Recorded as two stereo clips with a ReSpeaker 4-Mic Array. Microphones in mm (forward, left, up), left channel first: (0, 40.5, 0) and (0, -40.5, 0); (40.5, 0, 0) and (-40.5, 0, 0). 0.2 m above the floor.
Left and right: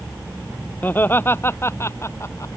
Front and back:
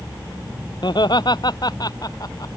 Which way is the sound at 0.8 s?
25° left.